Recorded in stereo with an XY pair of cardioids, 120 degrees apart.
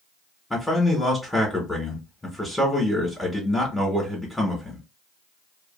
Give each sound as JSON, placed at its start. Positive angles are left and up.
{"t": 0.5, "sound": "a man speaking", "azimuth_deg": 5, "distance_m": 1.5}